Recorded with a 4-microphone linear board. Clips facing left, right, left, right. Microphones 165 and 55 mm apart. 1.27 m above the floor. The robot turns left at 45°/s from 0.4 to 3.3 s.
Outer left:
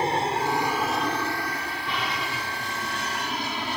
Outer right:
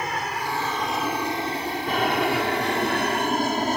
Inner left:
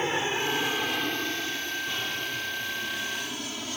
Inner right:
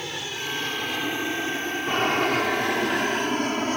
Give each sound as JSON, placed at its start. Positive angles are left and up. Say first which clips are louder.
{"t": 0.0, "sound": "an aircraft", "louder": "outer left 4 dB, inner left 5 dB", "side_deg": 30}